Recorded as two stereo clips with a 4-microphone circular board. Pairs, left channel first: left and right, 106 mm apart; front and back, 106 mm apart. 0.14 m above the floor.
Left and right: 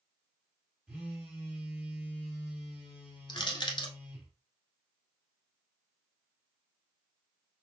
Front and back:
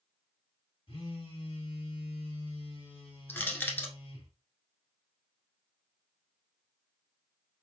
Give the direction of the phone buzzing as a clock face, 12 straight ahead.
12 o'clock.